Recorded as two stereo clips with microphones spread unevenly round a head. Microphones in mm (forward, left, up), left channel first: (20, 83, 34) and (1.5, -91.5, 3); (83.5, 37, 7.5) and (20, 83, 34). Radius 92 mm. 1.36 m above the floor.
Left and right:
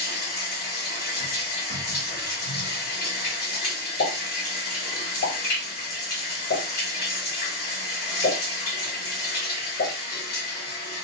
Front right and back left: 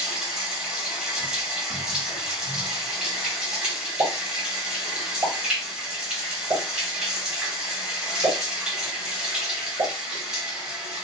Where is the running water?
80° left, 1.9 m.